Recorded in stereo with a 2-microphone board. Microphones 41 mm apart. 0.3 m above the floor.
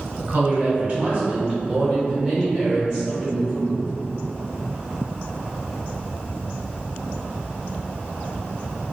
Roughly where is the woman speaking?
Right.